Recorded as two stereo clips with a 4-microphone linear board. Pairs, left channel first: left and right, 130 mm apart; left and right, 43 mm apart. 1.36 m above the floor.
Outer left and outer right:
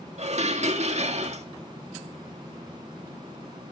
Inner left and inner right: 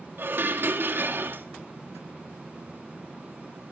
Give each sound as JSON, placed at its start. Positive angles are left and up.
{"t": 0.2, "sound": "dishes clattering", "side_deg": -55, "distance_m": 1.9}